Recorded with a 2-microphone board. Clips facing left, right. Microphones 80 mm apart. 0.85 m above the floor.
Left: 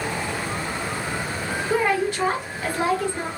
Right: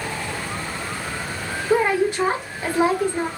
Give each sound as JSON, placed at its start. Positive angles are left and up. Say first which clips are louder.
{"t": 1.7, "sound": "a woman speaking", "louder": "right 3 dB", "side_deg": -20, "distance_m": 0.9}